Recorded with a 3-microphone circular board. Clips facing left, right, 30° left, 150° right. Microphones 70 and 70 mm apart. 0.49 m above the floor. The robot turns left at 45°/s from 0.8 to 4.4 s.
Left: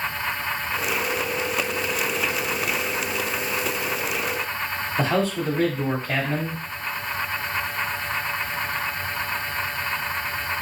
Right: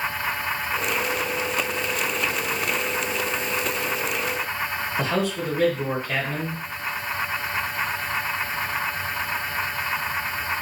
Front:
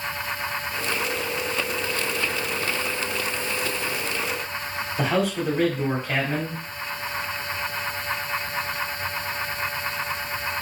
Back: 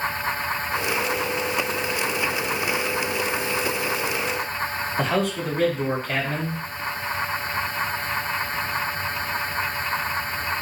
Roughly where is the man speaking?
Left.